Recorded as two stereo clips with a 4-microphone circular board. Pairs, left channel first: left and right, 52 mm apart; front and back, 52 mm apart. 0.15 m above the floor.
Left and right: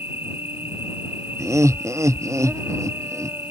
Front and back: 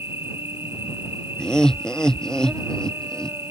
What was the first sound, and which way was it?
An insect, 140° right.